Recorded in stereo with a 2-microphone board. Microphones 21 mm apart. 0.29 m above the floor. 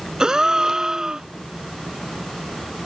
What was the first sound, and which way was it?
A gasp, 35° right (ahead or behind).